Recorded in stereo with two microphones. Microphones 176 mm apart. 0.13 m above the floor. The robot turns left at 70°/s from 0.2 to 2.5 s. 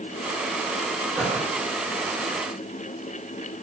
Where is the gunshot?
5° right (ahead or behind), 2.5 m; by 1.5 s 20° left (ahead or behind), 2.5 m.